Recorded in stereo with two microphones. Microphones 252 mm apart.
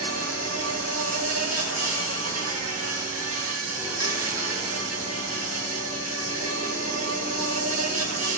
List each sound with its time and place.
0.0 s an insect: 65° right (ahead or behind), 2 m